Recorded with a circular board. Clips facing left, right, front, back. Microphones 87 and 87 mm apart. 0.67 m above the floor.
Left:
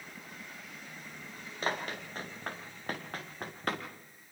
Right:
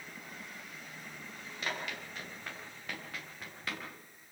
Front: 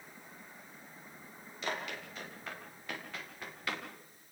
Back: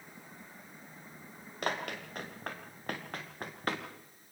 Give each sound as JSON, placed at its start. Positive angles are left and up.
{"t": 1.6, "sound": "running footsteps", "azimuth_deg": 145, "distance_m": 4.5}